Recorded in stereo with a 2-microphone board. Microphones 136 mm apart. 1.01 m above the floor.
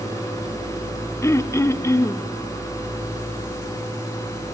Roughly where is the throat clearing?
Left.